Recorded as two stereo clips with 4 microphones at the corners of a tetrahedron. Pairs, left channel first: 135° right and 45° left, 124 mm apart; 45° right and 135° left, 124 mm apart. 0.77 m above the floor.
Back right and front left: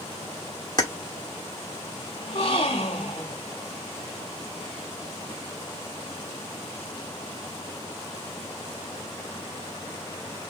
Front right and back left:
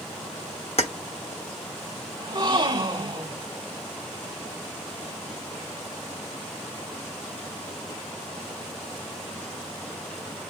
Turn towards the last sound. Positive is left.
turn(degrees=-175)